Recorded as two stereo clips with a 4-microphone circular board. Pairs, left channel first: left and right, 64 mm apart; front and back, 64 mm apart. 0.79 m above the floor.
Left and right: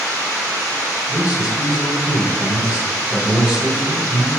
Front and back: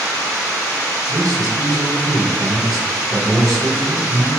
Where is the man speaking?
165° right, 3 m.